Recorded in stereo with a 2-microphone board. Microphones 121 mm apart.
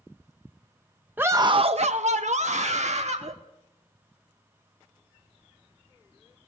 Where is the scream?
15° right (ahead or behind), 0.6 m; by 3.3 s 65° right (ahead or behind), 1.6 m.